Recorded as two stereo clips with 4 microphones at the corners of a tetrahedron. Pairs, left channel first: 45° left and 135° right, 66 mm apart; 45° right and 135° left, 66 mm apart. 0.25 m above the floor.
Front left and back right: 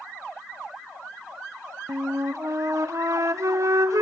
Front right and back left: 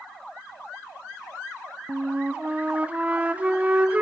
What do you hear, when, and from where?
1.9 s a flute: 160° right, 0.7 m